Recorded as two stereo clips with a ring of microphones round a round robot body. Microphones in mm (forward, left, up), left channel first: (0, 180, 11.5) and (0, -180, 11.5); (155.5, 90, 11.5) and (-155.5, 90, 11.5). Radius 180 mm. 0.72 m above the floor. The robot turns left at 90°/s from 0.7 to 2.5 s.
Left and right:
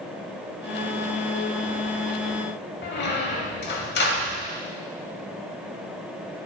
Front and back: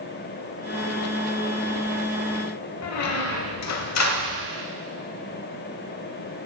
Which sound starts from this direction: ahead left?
A squeak, at 2.8 s.